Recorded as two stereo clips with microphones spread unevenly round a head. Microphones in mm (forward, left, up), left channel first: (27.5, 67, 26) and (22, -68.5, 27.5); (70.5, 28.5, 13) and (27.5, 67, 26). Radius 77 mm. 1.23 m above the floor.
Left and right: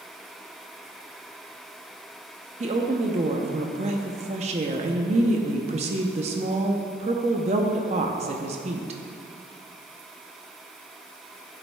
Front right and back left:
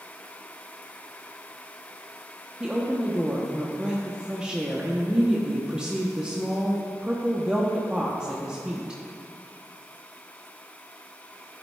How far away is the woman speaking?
About 0.7 m.